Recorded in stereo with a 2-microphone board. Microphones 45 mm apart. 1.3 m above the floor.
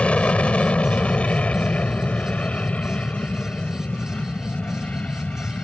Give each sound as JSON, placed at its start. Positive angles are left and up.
{"t": 0.0, "sound": "an aircraft", "side_deg": 25}